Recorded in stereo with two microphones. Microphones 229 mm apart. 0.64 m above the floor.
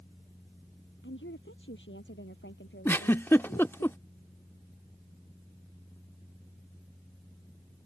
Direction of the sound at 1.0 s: 55° left (ahead or behind).